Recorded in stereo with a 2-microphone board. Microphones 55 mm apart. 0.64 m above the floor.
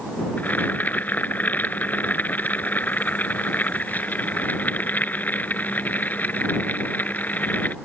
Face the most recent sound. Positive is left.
turn(degrees=35)  # may be behind; listen again after turning